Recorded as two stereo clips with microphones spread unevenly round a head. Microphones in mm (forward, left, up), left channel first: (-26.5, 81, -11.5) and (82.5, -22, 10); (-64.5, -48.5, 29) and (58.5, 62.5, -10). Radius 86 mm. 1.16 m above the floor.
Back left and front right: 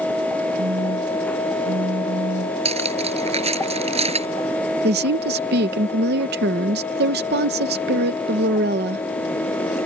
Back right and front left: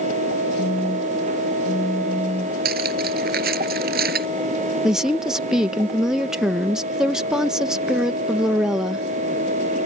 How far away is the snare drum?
No snare drum in this recording.